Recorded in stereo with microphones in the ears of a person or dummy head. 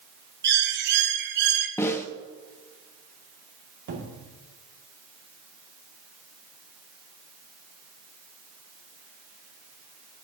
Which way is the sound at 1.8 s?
10° left (ahead or behind).